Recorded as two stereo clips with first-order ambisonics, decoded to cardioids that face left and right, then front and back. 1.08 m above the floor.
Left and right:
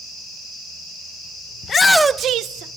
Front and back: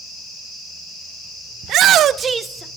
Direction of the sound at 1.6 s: 145° left.